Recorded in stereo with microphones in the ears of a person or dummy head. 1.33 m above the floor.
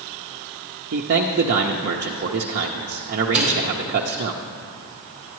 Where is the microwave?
5° right (ahead or behind), 3 m.